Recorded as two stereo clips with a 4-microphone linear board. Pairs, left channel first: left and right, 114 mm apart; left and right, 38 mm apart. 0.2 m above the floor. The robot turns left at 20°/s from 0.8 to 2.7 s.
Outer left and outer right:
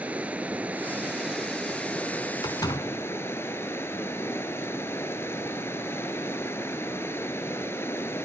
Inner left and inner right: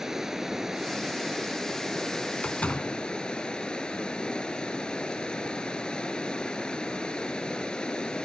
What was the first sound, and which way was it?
Running water, 165° right.